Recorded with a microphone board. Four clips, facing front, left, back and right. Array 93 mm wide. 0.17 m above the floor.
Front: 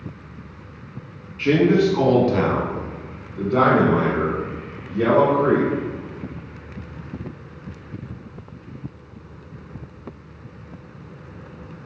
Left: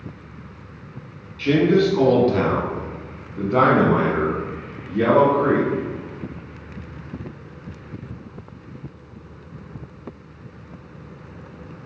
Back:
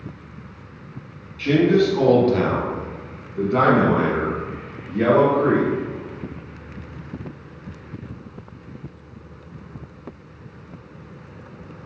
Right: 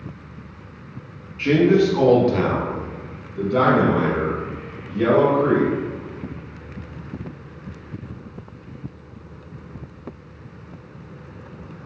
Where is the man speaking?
50° right, 1.2 m; by 5.7 s 120° left, 2 m.